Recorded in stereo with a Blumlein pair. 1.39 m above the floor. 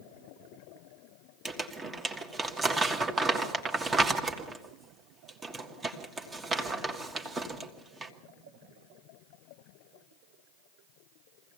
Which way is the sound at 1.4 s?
15° right.